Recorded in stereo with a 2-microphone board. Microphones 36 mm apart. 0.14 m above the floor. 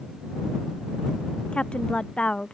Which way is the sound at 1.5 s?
35° left (ahead or behind).